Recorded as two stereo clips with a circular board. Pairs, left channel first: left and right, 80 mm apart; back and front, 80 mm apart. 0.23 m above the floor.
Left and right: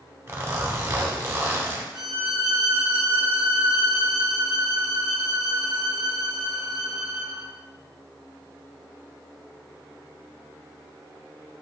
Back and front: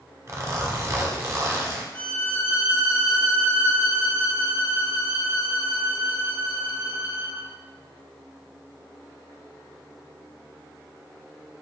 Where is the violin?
165° right, 1.4 m.